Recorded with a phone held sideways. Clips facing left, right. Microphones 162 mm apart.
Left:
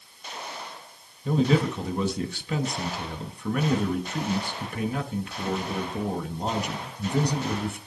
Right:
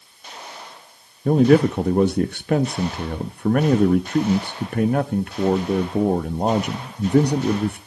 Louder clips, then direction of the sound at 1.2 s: Right 8 dB; 55° right (ahead or behind).